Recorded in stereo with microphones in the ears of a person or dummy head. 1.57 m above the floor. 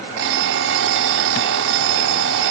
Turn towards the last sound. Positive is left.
turn(degrees=-60)  # may be behind; listen again after turning